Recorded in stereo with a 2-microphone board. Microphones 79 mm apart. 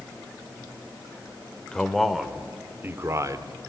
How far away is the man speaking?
About 1.6 m.